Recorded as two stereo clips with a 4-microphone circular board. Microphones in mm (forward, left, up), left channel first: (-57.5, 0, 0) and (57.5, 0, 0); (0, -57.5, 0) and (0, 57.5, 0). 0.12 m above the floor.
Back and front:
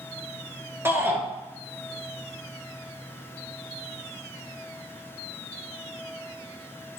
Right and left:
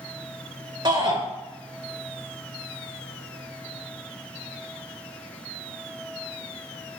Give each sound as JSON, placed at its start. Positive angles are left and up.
{"t": 0.8, "sound": "a shout", "azimuth_deg": 60, "distance_m": 1.7}